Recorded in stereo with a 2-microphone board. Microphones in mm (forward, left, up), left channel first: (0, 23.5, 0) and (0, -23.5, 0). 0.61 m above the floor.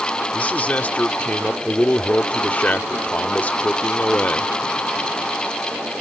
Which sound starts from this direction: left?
A man speaking, at 0.3 s.